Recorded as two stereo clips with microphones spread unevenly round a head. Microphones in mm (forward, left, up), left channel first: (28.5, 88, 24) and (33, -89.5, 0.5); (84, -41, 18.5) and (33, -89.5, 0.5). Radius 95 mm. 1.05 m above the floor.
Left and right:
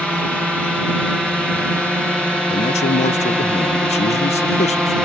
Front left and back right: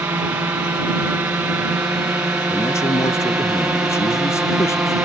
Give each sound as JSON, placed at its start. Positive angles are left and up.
{"t": 0.0, "sound": "a drone", "azimuth_deg": -175}
{"t": 2.5, "sound": "a man speaking", "azimuth_deg": 80}